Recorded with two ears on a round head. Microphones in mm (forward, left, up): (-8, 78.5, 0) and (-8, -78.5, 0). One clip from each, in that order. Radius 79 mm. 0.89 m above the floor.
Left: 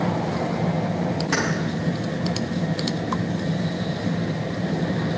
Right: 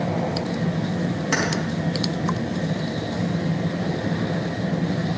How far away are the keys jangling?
About 4.5 m.